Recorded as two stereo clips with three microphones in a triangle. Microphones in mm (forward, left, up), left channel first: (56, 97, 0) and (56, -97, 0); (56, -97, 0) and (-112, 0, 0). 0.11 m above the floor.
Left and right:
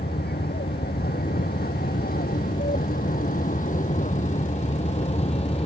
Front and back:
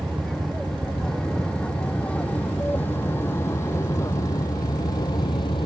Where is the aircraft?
60° left; by 5.7 s 35° left.